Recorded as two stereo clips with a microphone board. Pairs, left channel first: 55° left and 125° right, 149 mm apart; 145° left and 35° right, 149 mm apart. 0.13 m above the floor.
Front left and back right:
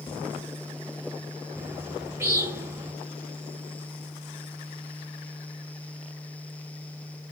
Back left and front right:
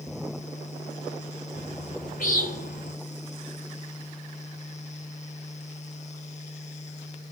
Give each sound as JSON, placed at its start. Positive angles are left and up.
{"t": 1.6, "sound": "a bird", "azimuth_deg": 165, "distance_m": 7.5}